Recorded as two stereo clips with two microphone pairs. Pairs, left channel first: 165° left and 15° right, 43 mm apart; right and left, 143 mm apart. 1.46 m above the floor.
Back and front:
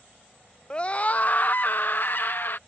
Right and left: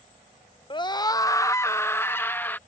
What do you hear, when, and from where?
0.7 s a scream: 135° right; by 2.6 s 165° right